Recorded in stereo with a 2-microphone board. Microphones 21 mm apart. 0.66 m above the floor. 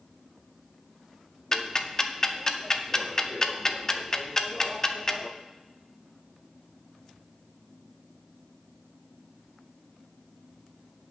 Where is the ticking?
20° left (ahead or behind), 0.7 m.